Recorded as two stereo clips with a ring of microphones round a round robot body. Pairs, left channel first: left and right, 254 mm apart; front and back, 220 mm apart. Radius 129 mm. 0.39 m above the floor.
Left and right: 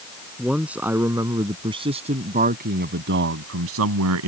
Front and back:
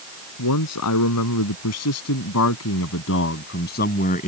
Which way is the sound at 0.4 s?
Straight ahead.